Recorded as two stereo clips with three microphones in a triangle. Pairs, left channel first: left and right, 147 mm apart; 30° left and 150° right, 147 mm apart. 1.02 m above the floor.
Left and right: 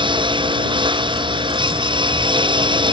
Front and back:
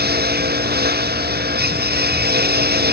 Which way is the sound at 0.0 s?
150° right.